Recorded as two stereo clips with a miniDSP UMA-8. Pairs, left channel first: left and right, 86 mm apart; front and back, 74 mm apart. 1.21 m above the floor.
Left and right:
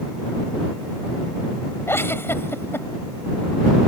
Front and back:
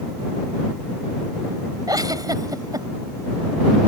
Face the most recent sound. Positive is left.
turn(degrees=150)